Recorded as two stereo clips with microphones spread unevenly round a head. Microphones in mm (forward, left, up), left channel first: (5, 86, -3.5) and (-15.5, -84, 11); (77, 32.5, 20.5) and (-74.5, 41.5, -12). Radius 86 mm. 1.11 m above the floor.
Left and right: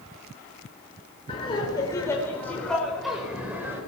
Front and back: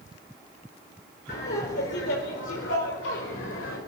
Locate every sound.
1.3 s laughter: 20° left, 4.5 m; by 3.8 s 20° right, 5.5 m